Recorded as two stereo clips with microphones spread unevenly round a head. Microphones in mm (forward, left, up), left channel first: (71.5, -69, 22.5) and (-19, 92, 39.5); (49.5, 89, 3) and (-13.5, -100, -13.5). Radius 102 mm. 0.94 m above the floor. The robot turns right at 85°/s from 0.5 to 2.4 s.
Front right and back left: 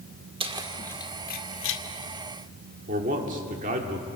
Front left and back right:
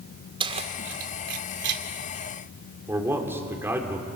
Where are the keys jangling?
175° right, 1.9 m; by 1.8 s 65° right, 1.9 m.